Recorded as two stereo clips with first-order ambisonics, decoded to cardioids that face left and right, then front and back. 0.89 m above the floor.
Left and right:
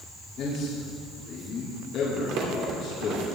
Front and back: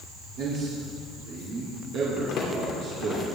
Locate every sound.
0.4 s a man speaking: 145° left, 2.5 m
2.2 s crumpling: 55° right, 2.5 m